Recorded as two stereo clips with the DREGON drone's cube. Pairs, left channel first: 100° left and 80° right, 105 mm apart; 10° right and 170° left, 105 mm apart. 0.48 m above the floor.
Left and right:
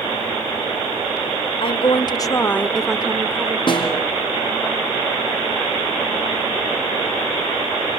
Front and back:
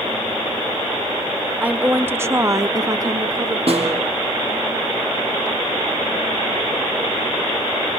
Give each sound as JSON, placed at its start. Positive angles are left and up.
{"t": 1.6, "sound": "a woman speaking", "azimuth_deg": 95, "distance_m": 1.1}
{"t": 3.7, "sound": "a snare drum", "azimuth_deg": 145, "distance_m": 4.0}